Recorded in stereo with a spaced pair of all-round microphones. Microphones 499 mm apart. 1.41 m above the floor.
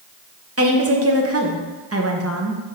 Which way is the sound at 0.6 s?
30° right (ahead or behind).